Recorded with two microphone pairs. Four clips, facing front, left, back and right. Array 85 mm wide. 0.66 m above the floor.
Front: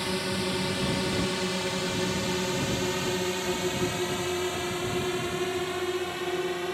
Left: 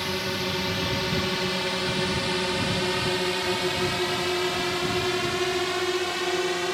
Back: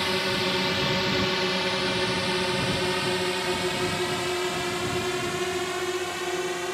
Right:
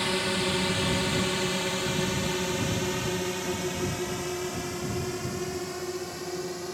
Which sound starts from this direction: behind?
A drone, at 0.0 s.